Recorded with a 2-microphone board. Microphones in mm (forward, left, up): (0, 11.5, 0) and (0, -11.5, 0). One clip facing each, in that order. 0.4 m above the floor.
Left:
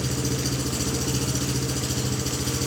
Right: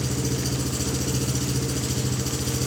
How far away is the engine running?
About 1.1 m.